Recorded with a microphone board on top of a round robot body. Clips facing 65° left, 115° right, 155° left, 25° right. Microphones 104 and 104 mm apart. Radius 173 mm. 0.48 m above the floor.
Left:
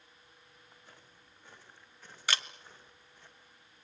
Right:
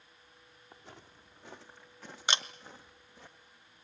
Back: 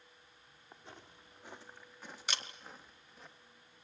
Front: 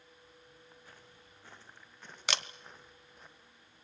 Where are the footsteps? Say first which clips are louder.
Right 8 dB, back 2 dB; 135° right, 2.5 m; by 3.3 s 110° right, 4 m.